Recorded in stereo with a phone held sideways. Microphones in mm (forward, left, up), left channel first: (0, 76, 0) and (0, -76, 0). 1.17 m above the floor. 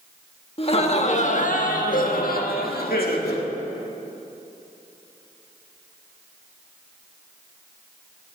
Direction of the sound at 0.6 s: 40° left (ahead or behind).